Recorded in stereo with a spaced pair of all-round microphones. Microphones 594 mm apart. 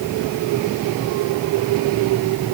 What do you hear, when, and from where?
Only background noise.